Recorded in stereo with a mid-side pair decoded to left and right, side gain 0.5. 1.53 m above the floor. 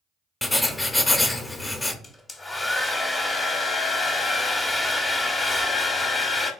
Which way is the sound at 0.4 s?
15° left.